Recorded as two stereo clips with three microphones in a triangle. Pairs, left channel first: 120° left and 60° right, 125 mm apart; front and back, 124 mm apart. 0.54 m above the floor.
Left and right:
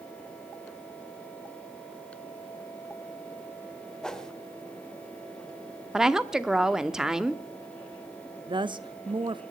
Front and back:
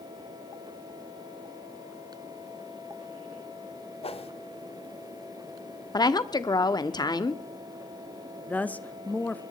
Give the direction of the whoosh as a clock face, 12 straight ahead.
11 o'clock.